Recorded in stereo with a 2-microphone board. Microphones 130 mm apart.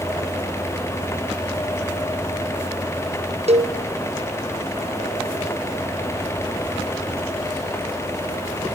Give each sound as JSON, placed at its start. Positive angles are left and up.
{"t": 3.5, "sound": "a cowbell", "side_deg": -55, "distance_m": 0.7}